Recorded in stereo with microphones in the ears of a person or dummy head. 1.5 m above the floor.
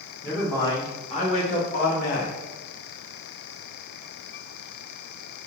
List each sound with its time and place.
0.2 s a man speaking: 5° left (ahead or behind), 1.1 m; by 2.4 s 60° left (ahead or behind), 1.4 m